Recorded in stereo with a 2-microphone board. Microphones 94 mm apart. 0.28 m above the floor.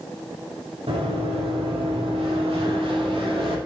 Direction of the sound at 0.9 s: 85° right.